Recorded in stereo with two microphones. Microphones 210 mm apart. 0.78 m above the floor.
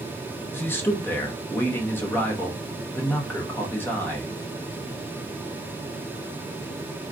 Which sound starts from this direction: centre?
A man speaking, at 0.5 s.